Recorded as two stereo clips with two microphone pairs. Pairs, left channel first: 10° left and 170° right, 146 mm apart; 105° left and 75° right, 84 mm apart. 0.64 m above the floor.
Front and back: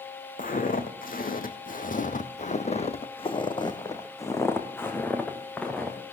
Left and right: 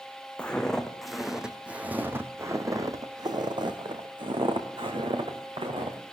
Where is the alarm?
I don't hear an alarm.